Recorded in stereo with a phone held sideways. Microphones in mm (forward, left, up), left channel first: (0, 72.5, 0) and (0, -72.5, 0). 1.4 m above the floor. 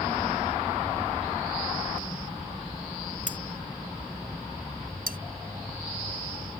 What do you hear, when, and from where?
3.3 s cutlery clinking: 60° left (ahead or behind)
5.1 s cutlery clinking: 85° right